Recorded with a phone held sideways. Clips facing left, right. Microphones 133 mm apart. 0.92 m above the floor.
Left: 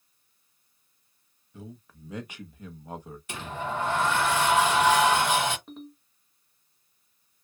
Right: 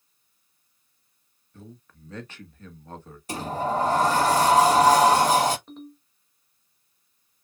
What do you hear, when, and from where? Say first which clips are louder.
1.5 s a man speaking: left 2 dB; 10° left (ahead or behind), 1.0 m
3.3 s a sliding door: right 7 dB; 40° right (ahead or behind), 0.6 m
5.7 s a ringtone: right 1 dB; centre (ahead or behind), 1.6 m